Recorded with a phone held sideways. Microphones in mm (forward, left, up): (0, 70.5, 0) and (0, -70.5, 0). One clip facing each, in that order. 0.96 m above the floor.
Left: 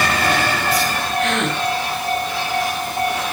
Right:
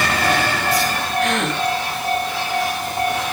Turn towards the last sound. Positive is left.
turn(degrees=0)  # may be behind; listen again after turning